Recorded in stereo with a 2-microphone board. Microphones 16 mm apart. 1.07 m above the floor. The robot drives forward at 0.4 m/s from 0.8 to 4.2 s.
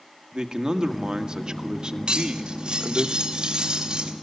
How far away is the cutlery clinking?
About 2.5 m.